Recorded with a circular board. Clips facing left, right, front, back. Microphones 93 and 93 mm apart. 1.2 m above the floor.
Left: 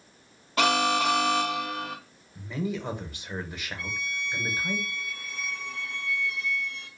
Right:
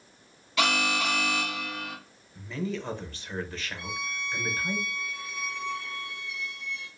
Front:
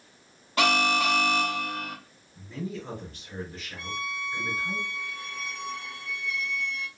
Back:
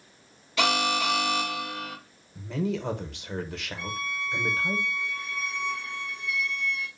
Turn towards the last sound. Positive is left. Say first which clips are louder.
# left 1 dB, even
turn(degrees=85)